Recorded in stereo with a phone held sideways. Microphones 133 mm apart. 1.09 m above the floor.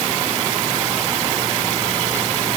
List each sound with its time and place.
Only background noise.